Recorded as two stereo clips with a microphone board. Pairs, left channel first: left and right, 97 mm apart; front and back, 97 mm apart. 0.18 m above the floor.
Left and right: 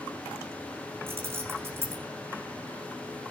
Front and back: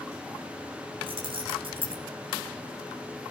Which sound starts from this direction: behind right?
Keys jangling, at 1.1 s.